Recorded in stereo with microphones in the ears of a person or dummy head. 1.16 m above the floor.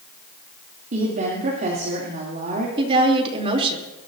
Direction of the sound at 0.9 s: 40° right (ahead or behind).